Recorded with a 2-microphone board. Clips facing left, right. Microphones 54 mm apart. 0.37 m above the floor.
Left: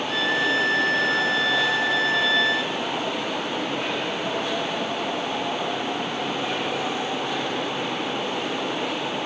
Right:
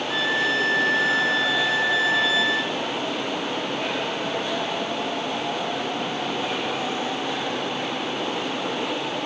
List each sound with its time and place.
0.1 s a violin: centre (ahead or behind), 1.2 m